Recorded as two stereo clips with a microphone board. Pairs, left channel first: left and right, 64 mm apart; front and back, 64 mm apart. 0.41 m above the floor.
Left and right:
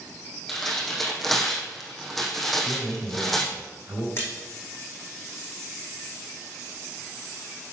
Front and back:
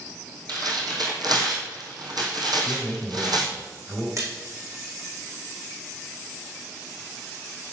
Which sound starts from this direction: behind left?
A splash, at 4.2 s.